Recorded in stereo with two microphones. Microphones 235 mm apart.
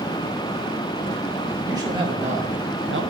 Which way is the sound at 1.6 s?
15° right (ahead or behind).